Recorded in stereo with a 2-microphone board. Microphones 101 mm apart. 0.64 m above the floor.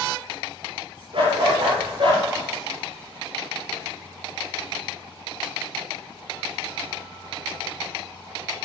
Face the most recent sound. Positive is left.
turn(degrees=-65)  # may be behind; listen again after turning